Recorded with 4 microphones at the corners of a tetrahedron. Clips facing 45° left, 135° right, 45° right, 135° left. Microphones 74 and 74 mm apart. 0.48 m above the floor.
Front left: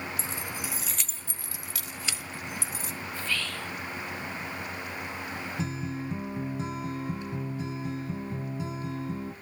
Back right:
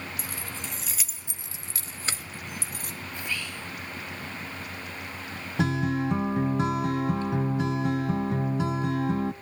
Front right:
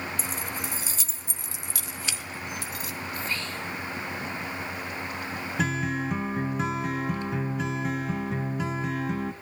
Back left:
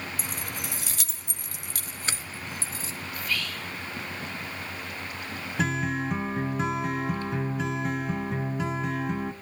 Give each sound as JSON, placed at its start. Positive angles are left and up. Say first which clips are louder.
{"t": 0.2, "sound": "keys jangling", "louder": "front left 2 dB, front right 2 dB", "azimuth_deg": 105, "distance_m": 1.3}
{"t": 3.1, "sound": "whispering", "louder": "front left 2 dB, back left 1 dB", "azimuth_deg": -70, "distance_m": 0.9}
{"t": 5.6, "sound": "a guitar", "louder": "back right 11 dB, back left 1 dB", "azimuth_deg": -135, "distance_m": 1.1}